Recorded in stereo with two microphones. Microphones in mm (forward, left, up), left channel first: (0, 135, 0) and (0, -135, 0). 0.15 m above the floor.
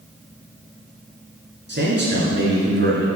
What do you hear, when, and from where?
1.7 s a man speaking: 40° right (ahead or behind), 2 m